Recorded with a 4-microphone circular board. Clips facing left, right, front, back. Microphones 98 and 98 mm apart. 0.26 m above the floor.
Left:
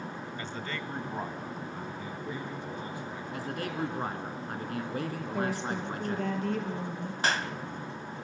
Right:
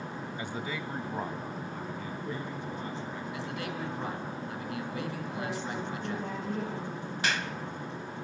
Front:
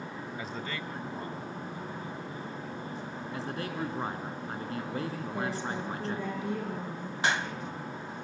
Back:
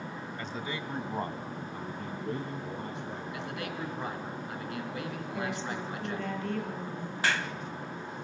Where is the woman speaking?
75° left, 6 m.